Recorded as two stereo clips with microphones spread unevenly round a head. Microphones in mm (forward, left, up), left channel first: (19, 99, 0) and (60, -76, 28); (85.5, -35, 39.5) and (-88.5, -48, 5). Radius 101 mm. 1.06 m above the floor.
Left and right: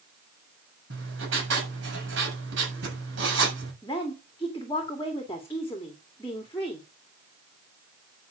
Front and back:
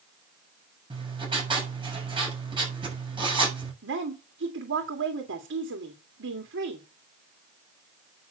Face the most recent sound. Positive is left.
turn(degrees=180)